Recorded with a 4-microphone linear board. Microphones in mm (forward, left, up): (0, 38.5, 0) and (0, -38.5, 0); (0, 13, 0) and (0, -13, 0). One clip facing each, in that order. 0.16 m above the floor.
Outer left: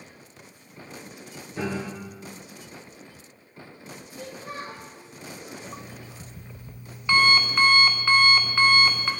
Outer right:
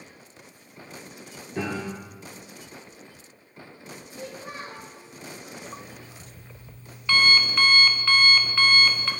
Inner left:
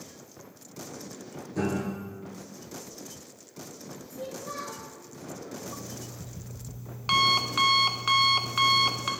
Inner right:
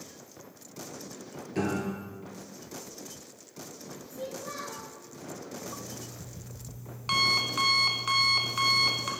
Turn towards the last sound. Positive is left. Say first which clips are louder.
# outer left 1 dB, inner left 1 dB
turn(degrees=15)  # may be behind; listen again after turning